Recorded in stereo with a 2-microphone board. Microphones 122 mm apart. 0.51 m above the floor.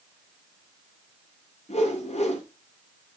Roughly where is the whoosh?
Left.